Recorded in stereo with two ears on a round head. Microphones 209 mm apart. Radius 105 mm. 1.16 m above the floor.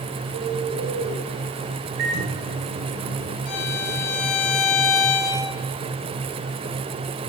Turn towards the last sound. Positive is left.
turn(degrees=75)  # may be behind; listen again after turning